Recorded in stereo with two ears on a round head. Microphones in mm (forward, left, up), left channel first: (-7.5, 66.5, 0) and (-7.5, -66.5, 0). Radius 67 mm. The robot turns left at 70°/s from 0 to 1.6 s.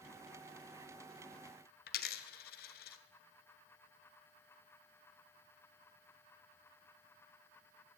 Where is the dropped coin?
65° left (ahead or behind), 0.8 m.